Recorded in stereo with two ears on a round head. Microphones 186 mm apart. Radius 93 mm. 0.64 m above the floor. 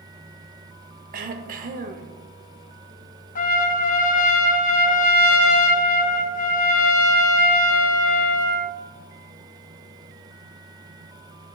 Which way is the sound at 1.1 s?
40° right (ahead or behind).